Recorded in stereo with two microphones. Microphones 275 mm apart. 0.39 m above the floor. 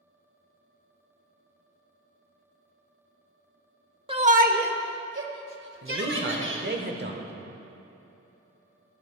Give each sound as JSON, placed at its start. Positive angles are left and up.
{"t": 4.1, "sound": "a shout", "side_deg": -20, "distance_m": 0.8}
{"t": 5.8, "sound": "a man speaking", "side_deg": -40, "distance_m": 1.2}